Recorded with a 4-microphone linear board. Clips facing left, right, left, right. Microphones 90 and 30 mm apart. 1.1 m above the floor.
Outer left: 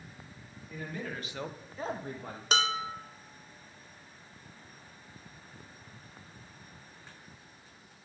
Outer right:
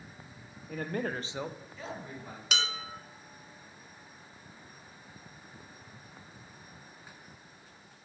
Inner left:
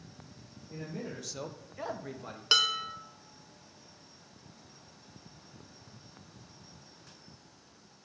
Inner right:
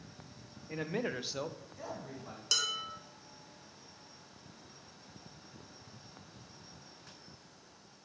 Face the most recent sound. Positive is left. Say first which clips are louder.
# outer left 6 dB, inner left 7 dB
turn(degrees=35)  # may be behind; listen again after turning